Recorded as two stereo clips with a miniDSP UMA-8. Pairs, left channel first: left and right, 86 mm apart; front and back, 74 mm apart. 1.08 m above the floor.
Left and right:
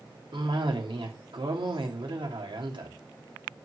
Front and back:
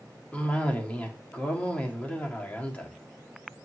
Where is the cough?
70° right, 3 m.